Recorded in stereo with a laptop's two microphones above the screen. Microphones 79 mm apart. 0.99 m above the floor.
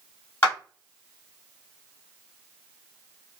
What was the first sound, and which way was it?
A clap, 30° left (ahead or behind).